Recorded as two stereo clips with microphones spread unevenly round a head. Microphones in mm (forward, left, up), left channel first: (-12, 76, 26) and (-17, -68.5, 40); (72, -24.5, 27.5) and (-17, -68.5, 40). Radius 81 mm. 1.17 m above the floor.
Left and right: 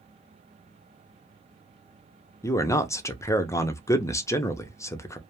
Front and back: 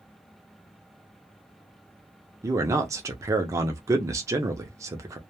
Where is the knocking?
I don't hear knocking.